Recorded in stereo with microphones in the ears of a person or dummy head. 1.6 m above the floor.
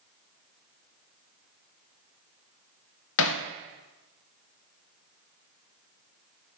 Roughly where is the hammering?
Left.